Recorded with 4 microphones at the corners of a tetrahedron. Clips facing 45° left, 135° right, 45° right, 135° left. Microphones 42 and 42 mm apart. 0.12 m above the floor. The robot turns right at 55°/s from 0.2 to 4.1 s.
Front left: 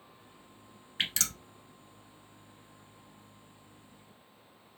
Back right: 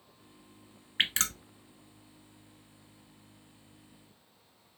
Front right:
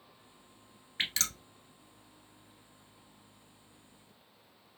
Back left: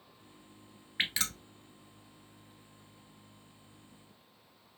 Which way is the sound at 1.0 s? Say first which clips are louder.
Back right 4 dB, back left 1 dB; 165° right.